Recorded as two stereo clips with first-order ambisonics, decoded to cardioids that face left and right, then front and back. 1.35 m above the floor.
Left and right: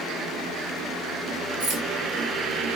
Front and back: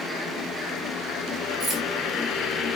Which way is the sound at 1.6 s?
135° right.